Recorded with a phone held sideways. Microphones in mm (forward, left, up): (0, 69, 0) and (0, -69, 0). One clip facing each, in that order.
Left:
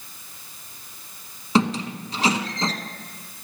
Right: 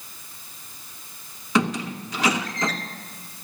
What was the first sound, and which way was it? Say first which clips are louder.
A squeak: left 2 dB; 30° left (ahead or behind).